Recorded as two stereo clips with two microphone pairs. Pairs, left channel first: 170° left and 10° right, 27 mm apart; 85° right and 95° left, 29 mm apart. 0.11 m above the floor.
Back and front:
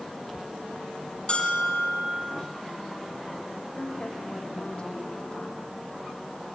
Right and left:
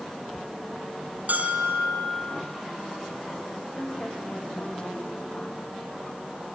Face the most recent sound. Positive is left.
turn(degrees=-135)